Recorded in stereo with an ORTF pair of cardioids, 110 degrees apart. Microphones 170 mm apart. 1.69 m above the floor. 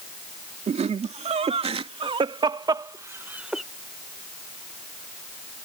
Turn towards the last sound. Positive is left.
turn(degrees=0)